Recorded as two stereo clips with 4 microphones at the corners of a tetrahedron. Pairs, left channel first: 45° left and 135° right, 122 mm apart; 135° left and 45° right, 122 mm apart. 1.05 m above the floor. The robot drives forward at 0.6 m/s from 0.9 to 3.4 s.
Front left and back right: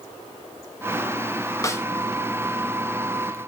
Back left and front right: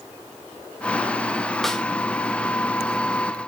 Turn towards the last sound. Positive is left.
turn(degrees=165)